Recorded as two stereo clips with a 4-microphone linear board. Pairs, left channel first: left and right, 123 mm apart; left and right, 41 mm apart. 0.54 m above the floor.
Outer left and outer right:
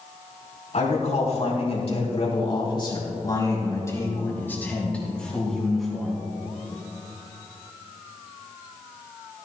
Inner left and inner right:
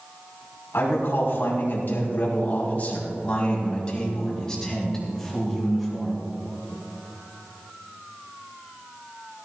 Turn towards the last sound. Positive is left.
turn(degrees=0)  # may be behind; listen again after turning